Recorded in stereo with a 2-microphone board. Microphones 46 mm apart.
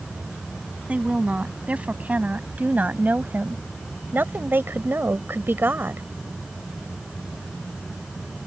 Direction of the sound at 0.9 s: 25° right (ahead or behind).